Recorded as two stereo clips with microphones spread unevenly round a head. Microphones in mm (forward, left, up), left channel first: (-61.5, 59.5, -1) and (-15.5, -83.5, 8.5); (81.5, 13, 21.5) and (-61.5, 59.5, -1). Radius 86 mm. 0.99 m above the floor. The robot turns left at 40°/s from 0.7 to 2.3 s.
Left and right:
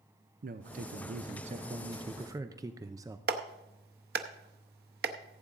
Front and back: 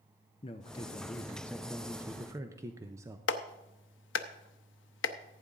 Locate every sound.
0.4 s a man speaking: 75° right, 0.6 m; by 3.2 s 140° right, 0.6 m
3.3 s a clap: 35° right, 0.7 m